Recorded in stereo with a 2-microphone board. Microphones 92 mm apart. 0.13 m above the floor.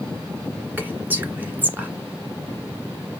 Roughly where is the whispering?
Right.